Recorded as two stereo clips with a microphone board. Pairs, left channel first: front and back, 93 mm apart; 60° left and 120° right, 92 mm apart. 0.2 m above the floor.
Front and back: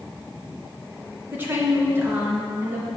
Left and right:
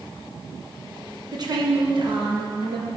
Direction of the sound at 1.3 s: 120° right.